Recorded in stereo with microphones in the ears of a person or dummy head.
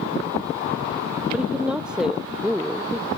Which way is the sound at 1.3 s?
5° right (ahead or behind).